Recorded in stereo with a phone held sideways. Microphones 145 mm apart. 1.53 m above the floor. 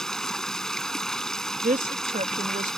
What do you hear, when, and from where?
0.0 s running water: 5° left (ahead or behind)
1.6 s a woman speaking: 70° right (ahead or behind)